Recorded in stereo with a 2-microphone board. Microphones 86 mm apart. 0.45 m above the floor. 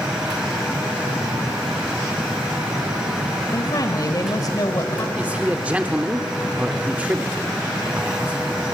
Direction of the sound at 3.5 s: 50° left (ahead or behind).